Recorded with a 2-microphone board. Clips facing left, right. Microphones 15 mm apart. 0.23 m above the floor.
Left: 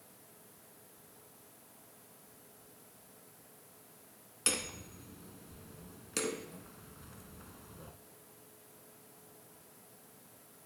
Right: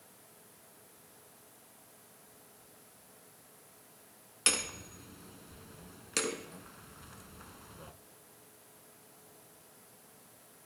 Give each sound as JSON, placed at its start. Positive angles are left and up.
{"t": 4.5, "sound": "hammering", "side_deg": -25, "distance_m": 0.7}